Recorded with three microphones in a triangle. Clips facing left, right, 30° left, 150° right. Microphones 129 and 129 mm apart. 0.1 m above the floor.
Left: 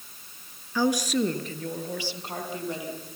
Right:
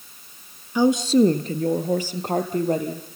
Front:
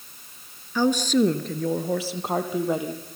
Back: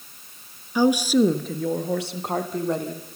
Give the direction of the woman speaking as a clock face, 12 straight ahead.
4 o'clock.